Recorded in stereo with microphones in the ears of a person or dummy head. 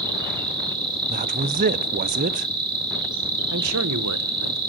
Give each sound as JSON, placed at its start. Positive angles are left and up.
{"t": 0.0, "sound": "an insect", "side_deg": -25, "distance_m": 2.5}
{"t": 1.1, "sound": "a man speaking", "side_deg": -40, "distance_m": 0.6}
{"t": 3.5, "sound": "a man speaking", "side_deg": -75, "distance_m": 1.1}